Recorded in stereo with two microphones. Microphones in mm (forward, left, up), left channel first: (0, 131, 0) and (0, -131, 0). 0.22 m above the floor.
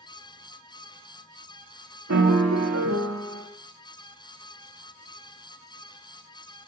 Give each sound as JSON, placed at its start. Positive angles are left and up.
{"t": 2.1, "sound": "a piano", "side_deg": -70, "distance_m": 0.5}